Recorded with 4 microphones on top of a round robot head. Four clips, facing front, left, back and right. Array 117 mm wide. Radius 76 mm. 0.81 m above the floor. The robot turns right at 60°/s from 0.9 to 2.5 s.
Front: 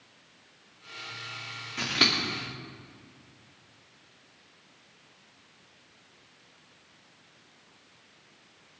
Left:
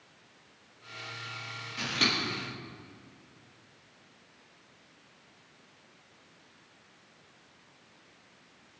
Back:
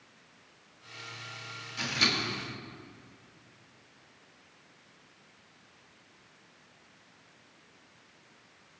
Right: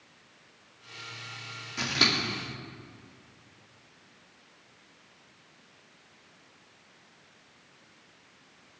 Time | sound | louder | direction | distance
1.8 | scissors | right 2 dB, front 3 dB | 40° right | 2.5 m